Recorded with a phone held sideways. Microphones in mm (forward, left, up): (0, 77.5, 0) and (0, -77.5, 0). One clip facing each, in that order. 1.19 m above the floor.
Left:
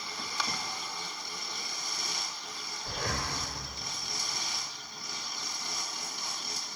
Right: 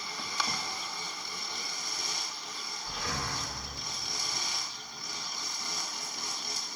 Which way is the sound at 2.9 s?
50° left (ahead or behind).